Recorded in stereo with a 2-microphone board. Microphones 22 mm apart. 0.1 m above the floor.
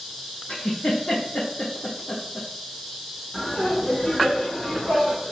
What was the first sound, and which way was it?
A giggle, 70° left (ahead or behind).